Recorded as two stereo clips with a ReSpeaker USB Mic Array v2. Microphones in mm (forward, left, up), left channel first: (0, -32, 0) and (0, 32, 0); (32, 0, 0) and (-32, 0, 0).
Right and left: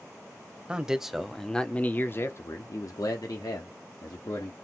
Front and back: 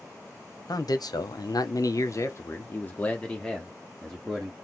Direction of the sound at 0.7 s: 15° left.